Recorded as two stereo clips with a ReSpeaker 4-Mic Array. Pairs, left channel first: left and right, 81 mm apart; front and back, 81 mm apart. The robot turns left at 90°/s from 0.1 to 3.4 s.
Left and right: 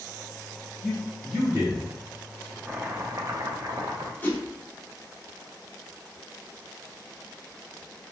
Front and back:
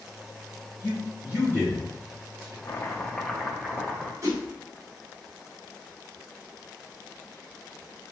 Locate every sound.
0.8 s a man speaking: 20° left, 1.3 m; by 2.5 s 135° right, 1.3 m
2.6 s chopping: 25° right, 0.6 m; by 4.1 s 95° right, 0.6 m
4.2 s a whoosh: 150° left, 0.8 m